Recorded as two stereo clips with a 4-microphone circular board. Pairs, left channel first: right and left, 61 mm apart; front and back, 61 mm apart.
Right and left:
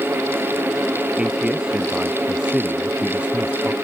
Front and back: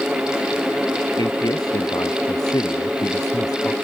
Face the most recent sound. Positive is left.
turn(degrees=15)